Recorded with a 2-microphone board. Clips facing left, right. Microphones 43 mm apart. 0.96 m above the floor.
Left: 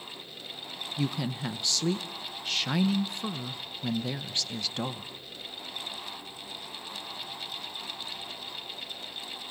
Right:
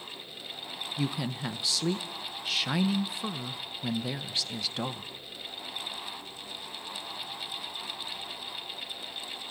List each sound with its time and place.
1.0 s a woman speaking: 5° right (ahead or behind), 0.7 m